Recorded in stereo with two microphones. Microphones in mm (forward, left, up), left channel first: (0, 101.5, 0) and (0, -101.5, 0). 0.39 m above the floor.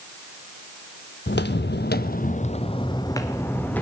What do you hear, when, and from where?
1.3 s footsteps: 60° left (ahead or behind), 0.8 m; by 3.8 s 10° left (ahead or behind), 1.4 m